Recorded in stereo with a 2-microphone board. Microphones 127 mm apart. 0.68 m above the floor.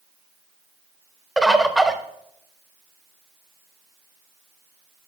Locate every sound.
1.4 s a bird: centre (ahead or behind), 0.6 m